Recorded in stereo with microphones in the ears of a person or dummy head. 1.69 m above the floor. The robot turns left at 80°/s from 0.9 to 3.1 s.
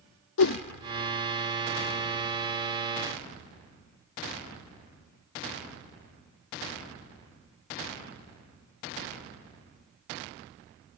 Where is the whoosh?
75° left (ahead or behind), 0.5 m.